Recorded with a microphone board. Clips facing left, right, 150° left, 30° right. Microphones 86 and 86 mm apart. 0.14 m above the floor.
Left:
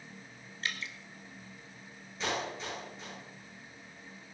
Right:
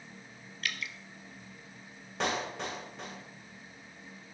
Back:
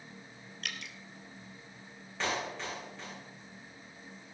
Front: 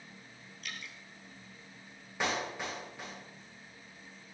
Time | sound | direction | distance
0.6 | dripping | 150° left | 1.2 m
2.2 | a clap | 105° right | 8 m